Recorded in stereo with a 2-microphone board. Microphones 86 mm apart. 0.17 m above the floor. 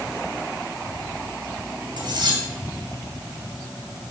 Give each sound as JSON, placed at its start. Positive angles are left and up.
{"t": 2.0, "sound": "cutlery clinking", "side_deg": -55, "distance_m": 2.5}